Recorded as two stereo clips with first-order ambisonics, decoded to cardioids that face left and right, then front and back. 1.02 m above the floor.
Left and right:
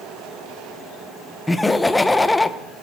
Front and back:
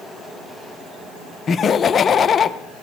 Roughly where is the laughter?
Ahead.